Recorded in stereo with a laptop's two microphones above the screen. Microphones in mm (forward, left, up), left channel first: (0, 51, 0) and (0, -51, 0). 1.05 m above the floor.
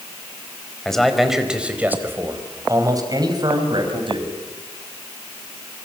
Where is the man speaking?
5° left (ahead or behind), 4.5 m; by 4.3 s 55° right (ahead or behind), 6 m.